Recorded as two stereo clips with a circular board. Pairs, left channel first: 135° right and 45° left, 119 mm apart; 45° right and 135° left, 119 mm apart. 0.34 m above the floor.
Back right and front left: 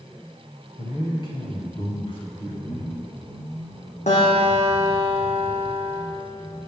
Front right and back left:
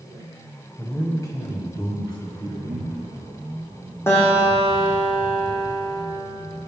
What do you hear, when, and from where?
0.8 s a man speaking: 115° right, 2 m; by 2.6 s 90° right, 4 m
2.7 s a cupboard door: 155° right, 5 m
4.1 s a guitar: 115° right, 5 m